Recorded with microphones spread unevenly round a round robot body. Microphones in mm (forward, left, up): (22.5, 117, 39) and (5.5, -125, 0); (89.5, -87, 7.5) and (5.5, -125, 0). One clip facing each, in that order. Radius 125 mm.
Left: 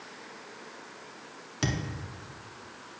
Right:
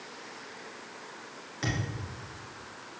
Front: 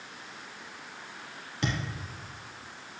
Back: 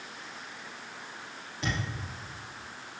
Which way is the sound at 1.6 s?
50° left.